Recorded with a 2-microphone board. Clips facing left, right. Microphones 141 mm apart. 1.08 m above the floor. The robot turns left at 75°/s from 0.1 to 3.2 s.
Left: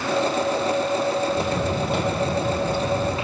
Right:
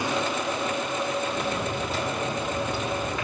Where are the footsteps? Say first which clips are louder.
Left 5 dB; 25° left (ahead or behind), 3 m; by 3.2 s 35° left (ahead or behind), 3.5 m.